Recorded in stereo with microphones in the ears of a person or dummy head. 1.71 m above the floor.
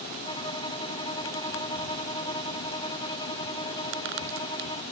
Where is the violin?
20° left (ahead or behind).